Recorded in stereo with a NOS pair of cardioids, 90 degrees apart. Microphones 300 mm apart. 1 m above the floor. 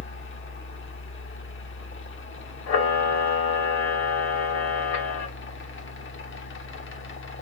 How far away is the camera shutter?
About 2 m.